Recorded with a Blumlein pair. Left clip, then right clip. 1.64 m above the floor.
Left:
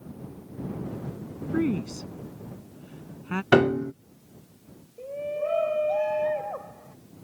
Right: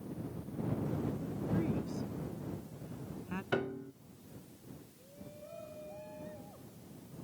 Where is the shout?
40° left.